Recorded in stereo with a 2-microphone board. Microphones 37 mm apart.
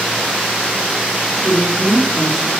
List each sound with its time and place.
1.4 s a woman speaking: 60° right (ahead or behind), 5.5 m